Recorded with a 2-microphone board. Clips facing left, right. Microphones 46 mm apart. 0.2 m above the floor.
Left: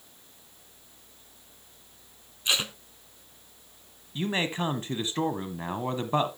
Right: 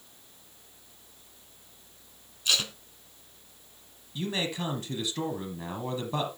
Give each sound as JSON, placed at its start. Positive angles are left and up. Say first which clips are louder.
{"t": 2.5, "sound": "tape being pulled", "louder": "left 1 dB", "side_deg": 25, "distance_m": 0.7}
{"t": 4.2, "sound": "a man speaking", "louder": "left 3 dB", "side_deg": 35, "distance_m": 1.2}